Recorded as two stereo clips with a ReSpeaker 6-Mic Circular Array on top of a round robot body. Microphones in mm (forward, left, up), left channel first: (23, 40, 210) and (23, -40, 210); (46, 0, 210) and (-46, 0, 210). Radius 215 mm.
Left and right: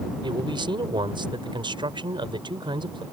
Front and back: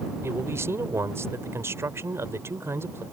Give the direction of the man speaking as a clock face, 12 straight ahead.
4 o'clock.